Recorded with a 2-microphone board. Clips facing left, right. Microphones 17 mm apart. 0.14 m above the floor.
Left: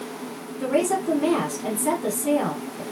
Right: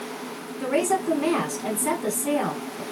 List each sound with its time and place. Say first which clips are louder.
0.6 s a woman speaking: left 1 dB; 20° right (ahead or behind), 1.0 m